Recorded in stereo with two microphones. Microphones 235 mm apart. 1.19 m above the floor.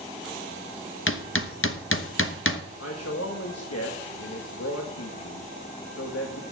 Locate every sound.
1.1 s hammering: 60° left (ahead or behind), 0.8 m
2.8 s a man speaking: 85° left, 1.2 m